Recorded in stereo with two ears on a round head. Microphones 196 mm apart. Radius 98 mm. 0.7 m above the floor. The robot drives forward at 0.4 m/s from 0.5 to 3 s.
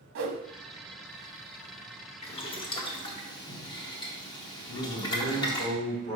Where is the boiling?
30° left (ahead or behind), 0.7 m; by 5.7 s 20° left (ahead or behind), 1.0 m.